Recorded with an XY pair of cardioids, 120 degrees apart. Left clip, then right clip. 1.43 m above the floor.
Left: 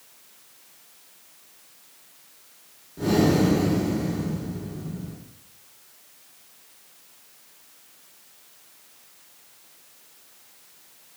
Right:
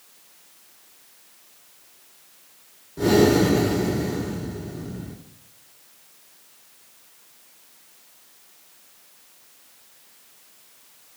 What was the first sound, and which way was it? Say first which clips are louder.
Breathing: right 4 dB; 35° right.